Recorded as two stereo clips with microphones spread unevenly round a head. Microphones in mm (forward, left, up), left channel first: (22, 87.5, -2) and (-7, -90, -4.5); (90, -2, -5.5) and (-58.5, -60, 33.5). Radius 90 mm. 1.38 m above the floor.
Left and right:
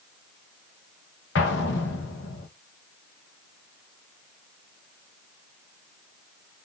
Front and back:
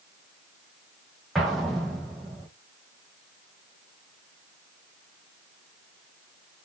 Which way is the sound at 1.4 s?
110° left.